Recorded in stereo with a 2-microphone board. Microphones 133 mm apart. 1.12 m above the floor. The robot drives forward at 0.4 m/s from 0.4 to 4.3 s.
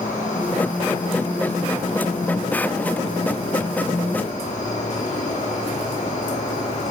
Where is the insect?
75° left (ahead or behind), 8 m; by 6.9 s 65° left (ahead or behind), 8.5 m.